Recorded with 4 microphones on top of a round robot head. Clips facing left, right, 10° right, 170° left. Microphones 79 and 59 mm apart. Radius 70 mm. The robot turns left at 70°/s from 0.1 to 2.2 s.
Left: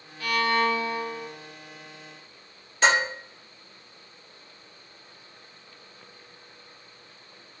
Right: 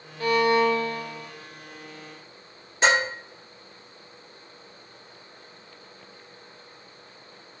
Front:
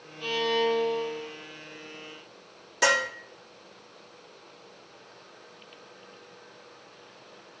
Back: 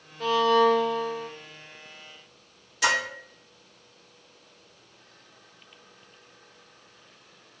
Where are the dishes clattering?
15° right, 1.5 m.